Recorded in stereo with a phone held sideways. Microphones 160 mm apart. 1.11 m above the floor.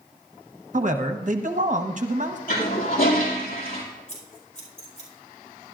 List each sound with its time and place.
0.7 s a man speaking: 55° right (ahead or behind), 1.0 m
2.5 s a toilet flushing: 65° left (ahead or behind), 2.5 m
4.1 s scissors: 50° left (ahead or behind), 5 m